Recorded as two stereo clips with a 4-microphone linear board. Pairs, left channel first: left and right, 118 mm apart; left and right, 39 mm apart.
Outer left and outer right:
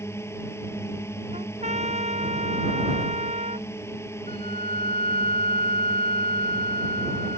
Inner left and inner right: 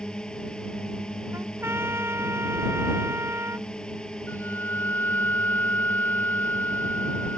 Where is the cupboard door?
No cupboard door in this recording.